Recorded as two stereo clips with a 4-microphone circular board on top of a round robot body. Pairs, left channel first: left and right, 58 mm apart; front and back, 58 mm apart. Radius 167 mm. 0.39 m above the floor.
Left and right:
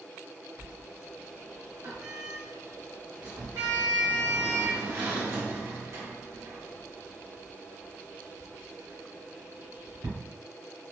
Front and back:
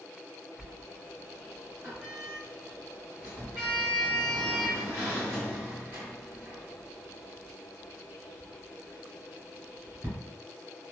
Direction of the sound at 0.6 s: 120° right.